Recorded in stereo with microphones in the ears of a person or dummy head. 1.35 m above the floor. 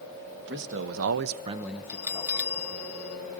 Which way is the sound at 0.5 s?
60° right (ahead or behind).